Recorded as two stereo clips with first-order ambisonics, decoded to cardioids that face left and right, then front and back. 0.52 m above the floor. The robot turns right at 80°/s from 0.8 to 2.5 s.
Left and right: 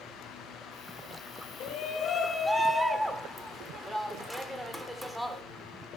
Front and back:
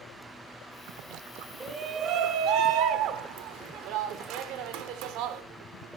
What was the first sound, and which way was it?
A shout, 105° left.